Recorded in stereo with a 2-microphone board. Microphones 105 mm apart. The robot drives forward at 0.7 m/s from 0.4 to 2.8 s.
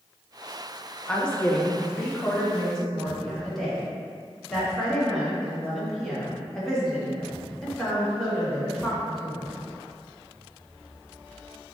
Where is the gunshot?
No gunshot in this recording.